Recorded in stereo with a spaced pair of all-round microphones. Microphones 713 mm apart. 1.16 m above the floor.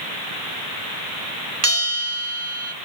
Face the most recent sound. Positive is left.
turn(degrees=-20)  # may be behind; listen again after turning